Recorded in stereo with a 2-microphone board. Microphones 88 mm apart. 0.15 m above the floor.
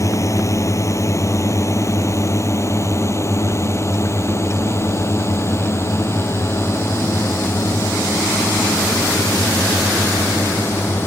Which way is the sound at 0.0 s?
40° left (ahead or behind).